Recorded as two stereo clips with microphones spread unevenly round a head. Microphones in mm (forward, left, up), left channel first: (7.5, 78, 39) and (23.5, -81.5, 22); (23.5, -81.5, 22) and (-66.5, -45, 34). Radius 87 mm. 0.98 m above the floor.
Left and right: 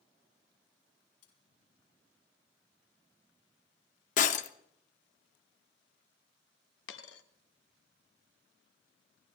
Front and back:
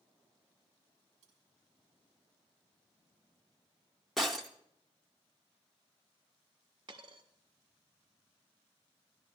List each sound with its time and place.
1.2 s cutlery clinking: 115° left, 4 m
4.2 s breaking glass: 75° left, 0.7 m
6.9 s a dropped coin: 95° left, 1.0 m